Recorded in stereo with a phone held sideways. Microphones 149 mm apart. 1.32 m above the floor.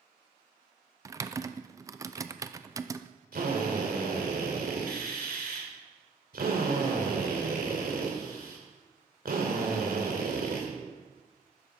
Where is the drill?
70° right (ahead or behind), 2.5 m.